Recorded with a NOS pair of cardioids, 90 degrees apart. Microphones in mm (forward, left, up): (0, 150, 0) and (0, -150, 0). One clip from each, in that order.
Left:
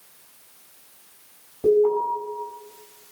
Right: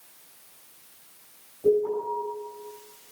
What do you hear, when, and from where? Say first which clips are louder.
1.6 s an alarm: left 5 dB; 65° left, 9 m